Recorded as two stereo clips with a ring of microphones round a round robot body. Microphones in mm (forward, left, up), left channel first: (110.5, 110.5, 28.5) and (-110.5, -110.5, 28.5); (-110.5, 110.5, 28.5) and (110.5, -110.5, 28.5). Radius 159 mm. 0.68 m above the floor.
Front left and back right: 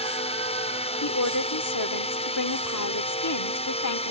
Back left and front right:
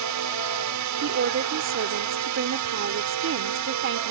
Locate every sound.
0.0 s a drone: 25° right
1.0 s a woman speaking: 5° left